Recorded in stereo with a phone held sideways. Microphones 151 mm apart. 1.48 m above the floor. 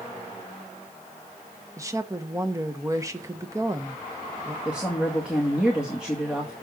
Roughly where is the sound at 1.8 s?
Right.